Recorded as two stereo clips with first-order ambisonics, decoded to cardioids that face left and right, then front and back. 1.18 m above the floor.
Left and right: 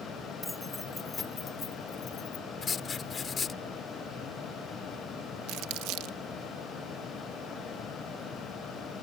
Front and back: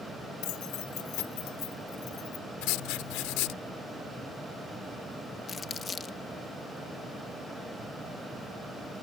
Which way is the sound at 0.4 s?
Straight ahead.